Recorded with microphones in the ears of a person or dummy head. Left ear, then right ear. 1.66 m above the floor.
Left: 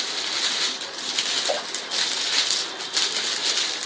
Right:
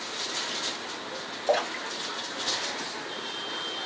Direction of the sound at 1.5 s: 15° right (ahead or behind).